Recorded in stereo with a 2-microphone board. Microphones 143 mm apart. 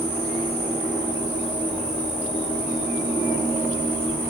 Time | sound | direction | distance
0.0 | an insect | 45° left (ahead or behind) | 9 m